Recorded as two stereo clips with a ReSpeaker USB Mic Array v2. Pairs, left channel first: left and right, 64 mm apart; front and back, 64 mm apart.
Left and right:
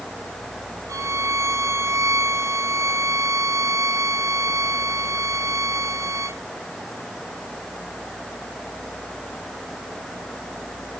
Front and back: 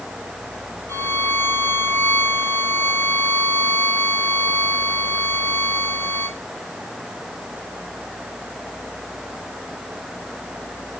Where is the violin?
55° right, 1.0 m.